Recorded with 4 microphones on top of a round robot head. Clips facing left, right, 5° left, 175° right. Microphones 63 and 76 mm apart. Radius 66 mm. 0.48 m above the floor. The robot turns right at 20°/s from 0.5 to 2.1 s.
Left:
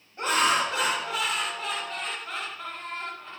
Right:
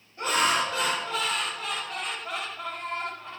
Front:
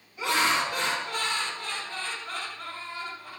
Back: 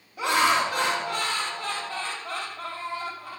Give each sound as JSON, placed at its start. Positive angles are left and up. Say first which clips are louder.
{"t": 0.2, "sound": "laughter", "louder": "left 1 dB, back 4 dB", "azimuth_deg": 155, "distance_m": 3.0}